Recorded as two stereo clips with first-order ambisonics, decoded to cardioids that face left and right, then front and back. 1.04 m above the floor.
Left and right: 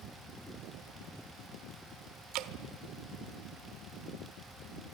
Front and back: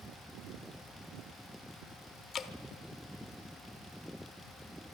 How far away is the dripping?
About 1.2 m.